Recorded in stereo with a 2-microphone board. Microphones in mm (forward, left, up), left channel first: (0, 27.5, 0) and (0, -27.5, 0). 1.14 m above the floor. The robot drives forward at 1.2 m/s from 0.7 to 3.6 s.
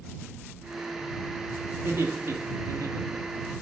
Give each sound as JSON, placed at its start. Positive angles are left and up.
{"t": 1.7, "sound": "laughter", "side_deg": -50, "distance_m": 2.0}